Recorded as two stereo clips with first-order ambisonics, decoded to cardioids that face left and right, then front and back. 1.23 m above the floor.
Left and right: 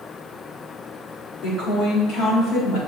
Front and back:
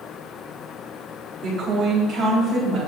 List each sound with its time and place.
1.4 s a woman speaking: 130° left, 3 m; by 2.8 s 120° left, 3.5 m